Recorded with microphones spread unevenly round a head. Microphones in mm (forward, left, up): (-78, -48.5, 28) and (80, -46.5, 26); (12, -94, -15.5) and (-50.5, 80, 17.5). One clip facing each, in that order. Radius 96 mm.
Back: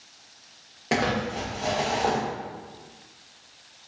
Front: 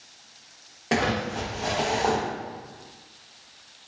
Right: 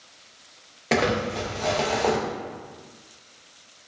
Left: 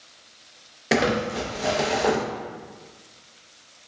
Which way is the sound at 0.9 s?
100° left.